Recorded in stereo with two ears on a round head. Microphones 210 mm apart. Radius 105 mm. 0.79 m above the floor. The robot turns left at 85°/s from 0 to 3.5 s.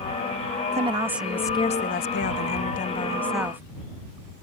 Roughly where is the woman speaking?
Behind right.